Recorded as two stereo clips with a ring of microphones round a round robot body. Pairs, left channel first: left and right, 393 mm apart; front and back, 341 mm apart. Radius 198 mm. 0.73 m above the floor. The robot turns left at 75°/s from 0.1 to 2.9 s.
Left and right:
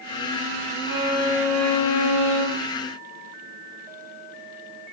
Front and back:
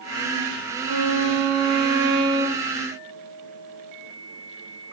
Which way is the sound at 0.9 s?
125° right.